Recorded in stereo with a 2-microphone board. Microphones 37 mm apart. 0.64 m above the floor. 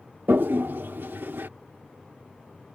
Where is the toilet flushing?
70° right (ahead or behind).